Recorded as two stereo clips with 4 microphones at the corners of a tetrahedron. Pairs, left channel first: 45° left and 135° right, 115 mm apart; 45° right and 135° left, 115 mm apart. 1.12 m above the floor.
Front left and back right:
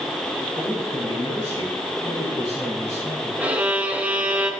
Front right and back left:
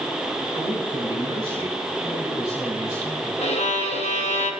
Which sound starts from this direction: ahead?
A man speaking, at 0.5 s.